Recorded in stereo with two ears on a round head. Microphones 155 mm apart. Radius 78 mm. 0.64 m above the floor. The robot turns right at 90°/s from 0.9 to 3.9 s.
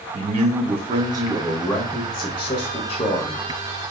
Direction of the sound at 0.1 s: 65° right.